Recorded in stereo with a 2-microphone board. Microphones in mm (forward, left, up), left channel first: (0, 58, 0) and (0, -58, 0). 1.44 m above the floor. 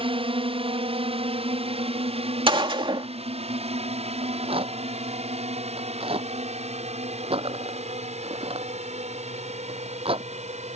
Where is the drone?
50° right (ahead or behind); by 10.8 s 70° right (ahead or behind).